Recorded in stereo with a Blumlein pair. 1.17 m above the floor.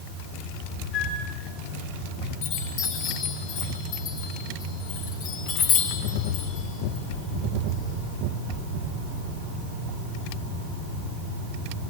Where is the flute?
35° left, 7.5 m.